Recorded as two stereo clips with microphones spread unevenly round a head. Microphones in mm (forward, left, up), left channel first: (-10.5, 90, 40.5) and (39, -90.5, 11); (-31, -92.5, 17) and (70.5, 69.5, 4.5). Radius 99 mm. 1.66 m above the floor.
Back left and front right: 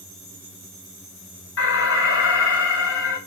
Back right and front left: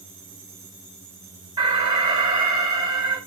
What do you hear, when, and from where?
1.6 s an alarm: 130° left, 4.5 m